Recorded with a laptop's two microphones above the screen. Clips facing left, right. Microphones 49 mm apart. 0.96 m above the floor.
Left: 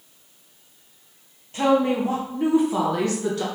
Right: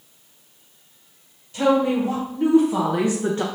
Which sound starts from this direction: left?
A woman speaking, at 1.5 s.